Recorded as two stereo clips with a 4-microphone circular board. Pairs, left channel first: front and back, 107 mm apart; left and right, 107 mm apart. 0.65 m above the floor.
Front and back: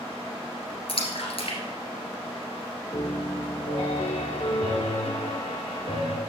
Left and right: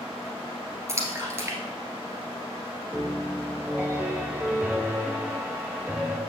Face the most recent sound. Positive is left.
turn(degrees=-15)